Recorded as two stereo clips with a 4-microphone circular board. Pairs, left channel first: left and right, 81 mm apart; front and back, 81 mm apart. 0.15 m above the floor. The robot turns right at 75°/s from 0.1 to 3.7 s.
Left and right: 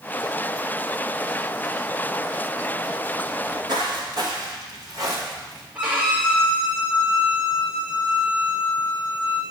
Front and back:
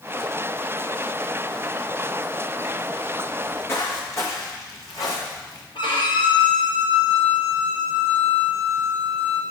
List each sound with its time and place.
3.3 s footsteps: 90° right, 4 m; by 5.7 s 40° right, 5 m
5.8 s a violin: 20° right, 3 m